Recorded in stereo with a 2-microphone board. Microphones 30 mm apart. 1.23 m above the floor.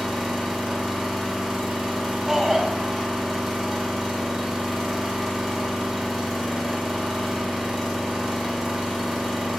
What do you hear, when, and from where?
0.0 s an engine running: 5° right (ahead or behind), 1.2 m
2.3 s a shout: 15° right (ahead or behind), 0.6 m